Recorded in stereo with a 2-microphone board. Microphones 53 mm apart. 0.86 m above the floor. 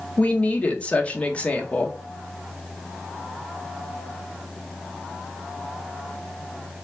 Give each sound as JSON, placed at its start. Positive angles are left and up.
{"t": 0.2, "sound": "a woman speaking", "side_deg": 20, "distance_m": 0.6}